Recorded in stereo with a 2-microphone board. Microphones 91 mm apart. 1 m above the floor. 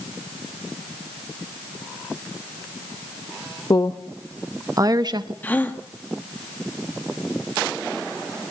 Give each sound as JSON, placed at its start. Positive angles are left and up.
{"t": 3.7, "sound": "a woman speaking", "side_deg": 40, "distance_m": 0.7}
{"t": 5.4, "sound": "a gasp", "side_deg": 20, "distance_m": 1.6}